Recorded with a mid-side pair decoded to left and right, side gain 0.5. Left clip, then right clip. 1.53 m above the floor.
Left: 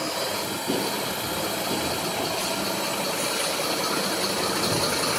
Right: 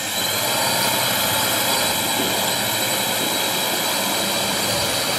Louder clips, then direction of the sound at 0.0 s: Right 5 dB; 60° right.